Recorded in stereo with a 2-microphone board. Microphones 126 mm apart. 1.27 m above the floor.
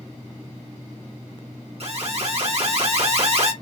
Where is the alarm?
50° right (ahead or behind), 1.1 m.